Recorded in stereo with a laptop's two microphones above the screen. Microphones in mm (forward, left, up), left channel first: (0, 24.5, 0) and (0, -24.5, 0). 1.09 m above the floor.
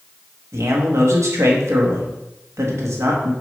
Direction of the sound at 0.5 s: 75° right (ahead or behind).